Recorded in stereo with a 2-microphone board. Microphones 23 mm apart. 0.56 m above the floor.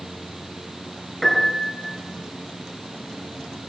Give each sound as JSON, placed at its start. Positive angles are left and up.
{"t": 1.2, "sound": "a piano", "side_deg": 15, "distance_m": 7.5}